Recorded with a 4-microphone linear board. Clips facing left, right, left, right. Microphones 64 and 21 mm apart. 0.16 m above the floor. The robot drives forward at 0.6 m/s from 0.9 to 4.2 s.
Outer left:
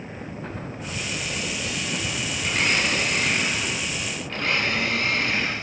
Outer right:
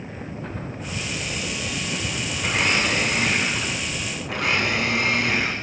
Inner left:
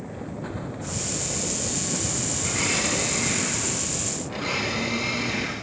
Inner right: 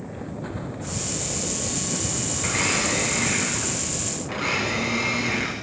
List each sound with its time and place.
2.4 s a blender: 80° right, 9 m; by 5.5 s 85° right, 9 m